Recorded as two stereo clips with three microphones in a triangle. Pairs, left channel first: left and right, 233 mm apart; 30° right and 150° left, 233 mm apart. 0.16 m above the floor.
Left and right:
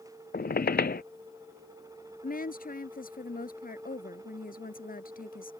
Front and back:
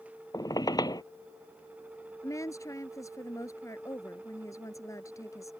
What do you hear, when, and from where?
0.3 s a squeak: 40° left
2.2 s a woman speaking: 45° left